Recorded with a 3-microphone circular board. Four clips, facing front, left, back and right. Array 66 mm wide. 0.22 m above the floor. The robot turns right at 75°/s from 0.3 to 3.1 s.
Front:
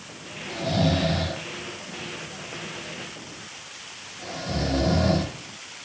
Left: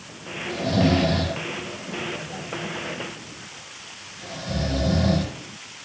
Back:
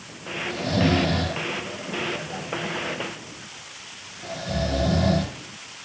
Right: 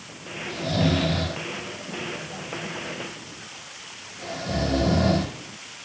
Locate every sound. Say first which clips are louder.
0.5 s snoring: left 3 dB, back 2 dB; 90° left, 4.5 m; by 5.3 s 75° right, 4.5 m